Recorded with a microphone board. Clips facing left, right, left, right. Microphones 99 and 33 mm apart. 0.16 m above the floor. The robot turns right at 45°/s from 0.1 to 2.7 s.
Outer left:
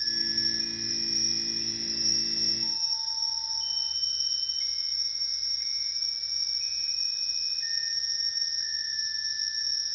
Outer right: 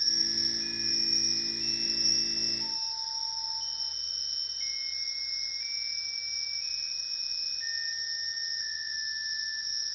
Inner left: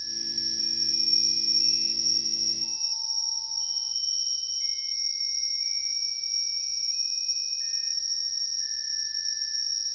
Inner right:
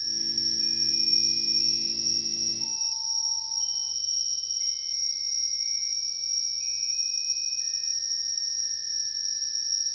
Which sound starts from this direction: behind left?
An insect, at 0.0 s.